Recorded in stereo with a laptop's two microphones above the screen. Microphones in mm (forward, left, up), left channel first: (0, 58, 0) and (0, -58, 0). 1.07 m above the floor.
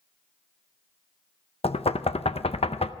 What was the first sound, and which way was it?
Knocking, 60° left (ahead or behind).